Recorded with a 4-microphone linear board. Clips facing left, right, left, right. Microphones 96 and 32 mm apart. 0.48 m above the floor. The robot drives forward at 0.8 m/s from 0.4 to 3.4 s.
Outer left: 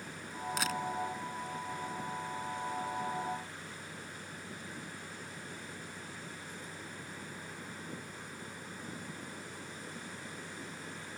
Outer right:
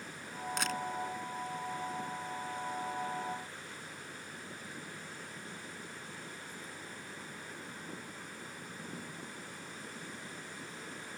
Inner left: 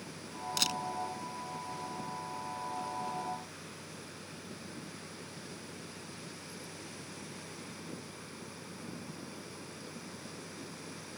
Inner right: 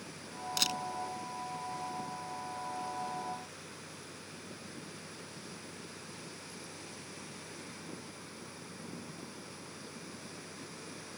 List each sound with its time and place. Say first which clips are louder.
0.6 s a camera shutter: outer left 1 dB, even; centre (ahead or behind)